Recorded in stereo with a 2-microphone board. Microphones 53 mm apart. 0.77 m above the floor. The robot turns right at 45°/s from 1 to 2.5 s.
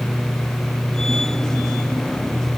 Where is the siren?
No siren in this recording.